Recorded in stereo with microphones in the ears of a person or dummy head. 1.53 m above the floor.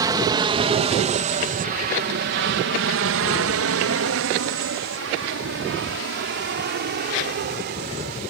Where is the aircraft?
25° right (ahead or behind); by 8.3 s 45° right (ahead or behind).